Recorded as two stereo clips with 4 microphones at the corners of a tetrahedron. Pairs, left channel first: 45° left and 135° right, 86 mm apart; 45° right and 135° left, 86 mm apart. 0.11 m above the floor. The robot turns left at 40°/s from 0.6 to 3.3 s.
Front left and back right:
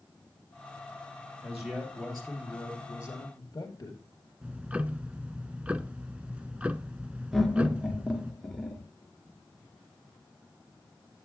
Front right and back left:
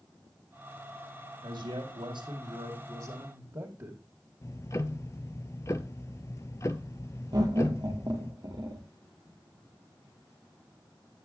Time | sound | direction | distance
1.4 | a man speaking | 160° left | 2.5 m
4.4 | ticking | 65° right | 0.6 m
7.3 | laughter | 130° left | 2 m